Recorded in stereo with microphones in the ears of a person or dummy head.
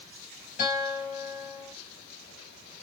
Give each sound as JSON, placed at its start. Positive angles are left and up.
{"t": 0.6, "sound": "a guitar", "side_deg": 40, "distance_m": 2.0}